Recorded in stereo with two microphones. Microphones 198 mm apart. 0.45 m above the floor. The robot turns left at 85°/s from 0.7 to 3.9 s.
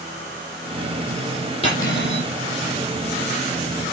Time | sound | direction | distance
1.6 | cutlery clinking | 145° left | 7.5 m